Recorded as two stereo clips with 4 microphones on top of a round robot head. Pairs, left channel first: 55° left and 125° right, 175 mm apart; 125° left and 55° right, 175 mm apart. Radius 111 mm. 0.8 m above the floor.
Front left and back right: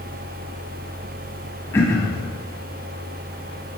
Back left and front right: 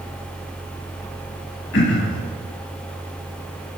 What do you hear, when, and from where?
1.7 s throat clearing: 130° left, 0.8 m